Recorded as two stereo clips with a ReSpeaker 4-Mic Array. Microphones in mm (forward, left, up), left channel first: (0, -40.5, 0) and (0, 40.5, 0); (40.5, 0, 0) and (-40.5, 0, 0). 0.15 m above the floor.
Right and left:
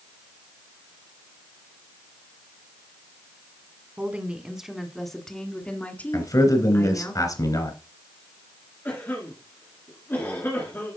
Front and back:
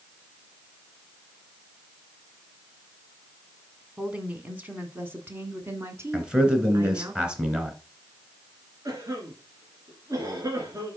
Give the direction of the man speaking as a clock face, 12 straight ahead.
3 o'clock.